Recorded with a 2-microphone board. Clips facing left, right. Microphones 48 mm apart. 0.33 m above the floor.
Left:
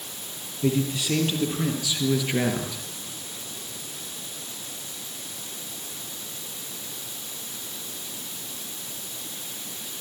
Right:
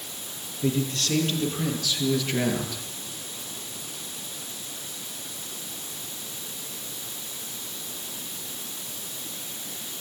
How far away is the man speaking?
About 7.5 m.